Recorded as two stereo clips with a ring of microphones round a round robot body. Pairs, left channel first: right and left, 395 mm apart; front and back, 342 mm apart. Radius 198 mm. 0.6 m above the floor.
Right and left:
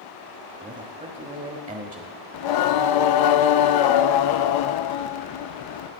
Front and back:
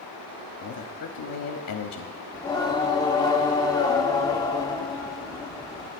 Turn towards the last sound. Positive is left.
turn(degrees=-80)